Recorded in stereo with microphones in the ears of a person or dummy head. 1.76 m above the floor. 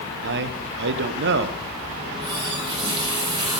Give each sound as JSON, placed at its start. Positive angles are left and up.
{"t": 0.2, "sound": "a man speaking", "side_deg": -55, "distance_m": 1.3}
{"t": 2.0, "sound": "a running tap", "side_deg": -25, "distance_m": 6.0}